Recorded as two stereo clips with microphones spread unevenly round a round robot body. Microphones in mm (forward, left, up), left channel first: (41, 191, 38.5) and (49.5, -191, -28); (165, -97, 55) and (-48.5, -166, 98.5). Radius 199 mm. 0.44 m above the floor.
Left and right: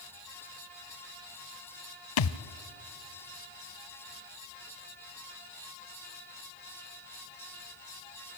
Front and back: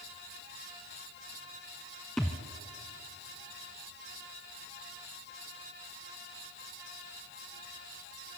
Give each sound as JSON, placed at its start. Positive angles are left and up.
{"t": 2.2, "sound": "a thud", "azimuth_deg": 110, "distance_m": 0.7}